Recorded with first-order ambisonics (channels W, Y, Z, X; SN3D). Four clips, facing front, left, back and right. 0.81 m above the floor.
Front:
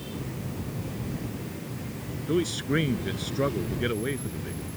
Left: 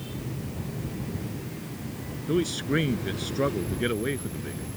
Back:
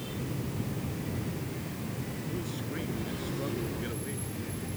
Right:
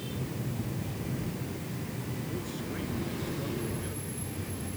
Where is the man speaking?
45° left; by 4.6 s 60° left.